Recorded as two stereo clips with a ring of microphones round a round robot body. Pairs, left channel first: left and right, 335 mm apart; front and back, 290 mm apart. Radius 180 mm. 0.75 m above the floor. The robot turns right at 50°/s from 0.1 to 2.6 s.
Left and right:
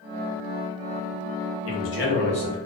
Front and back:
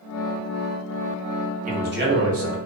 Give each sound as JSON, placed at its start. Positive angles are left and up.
{"t": 1.6, "sound": "a man speaking", "azimuth_deg": 120, "distance_m": 1.2}